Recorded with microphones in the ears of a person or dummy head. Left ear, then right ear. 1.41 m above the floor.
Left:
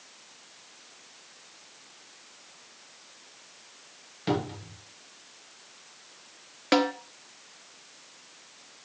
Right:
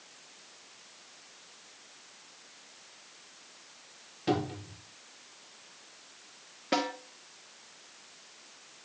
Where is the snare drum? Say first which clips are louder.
Left 6 dB; 45° left (ahead or behind), 1.1 m.